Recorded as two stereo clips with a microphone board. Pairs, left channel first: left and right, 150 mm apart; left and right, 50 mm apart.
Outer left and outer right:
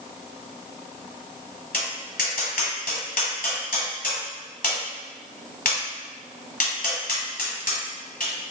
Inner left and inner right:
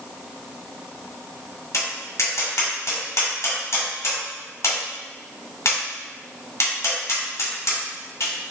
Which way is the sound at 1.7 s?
75° left (ahead or behind).